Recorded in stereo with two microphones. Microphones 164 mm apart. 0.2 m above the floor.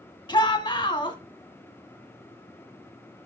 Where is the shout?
30° left (ahead or behind), 1.2 m.